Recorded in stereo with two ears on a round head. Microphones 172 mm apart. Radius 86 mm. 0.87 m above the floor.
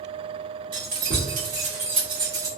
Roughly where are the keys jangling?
Right.